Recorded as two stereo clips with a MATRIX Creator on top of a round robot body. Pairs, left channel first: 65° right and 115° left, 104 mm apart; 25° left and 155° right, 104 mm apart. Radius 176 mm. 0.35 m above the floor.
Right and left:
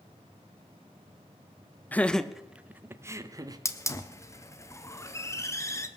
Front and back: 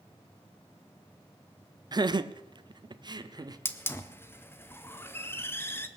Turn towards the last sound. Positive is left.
turn(degrees=-30)